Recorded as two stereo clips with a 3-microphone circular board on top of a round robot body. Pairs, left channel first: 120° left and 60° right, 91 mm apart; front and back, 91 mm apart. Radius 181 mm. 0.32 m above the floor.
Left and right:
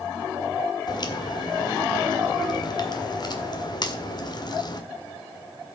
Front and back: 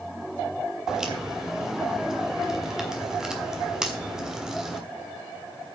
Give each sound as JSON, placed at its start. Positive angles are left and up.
{"t": 0.9, "sound": "a crack", "azimuth_deg": 100, "distance_m": 1.7}